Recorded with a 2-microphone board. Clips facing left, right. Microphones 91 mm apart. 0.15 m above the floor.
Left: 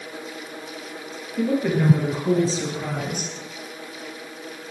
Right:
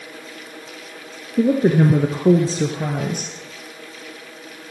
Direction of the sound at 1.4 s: 40° right (ahead or behind).